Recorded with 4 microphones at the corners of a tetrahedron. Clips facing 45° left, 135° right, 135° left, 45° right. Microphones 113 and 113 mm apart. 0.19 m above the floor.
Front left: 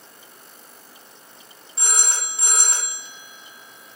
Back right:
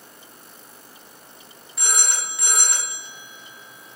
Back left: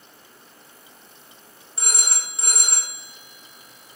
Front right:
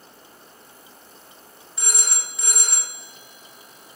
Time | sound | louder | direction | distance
1.8 | a phone ringing | even, even | 95° left | 0.8 m